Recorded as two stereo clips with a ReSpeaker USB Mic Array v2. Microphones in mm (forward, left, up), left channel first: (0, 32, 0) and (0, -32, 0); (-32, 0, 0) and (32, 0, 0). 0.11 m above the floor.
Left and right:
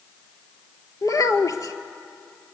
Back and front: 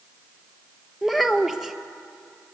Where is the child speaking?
85° left, 1.4 m.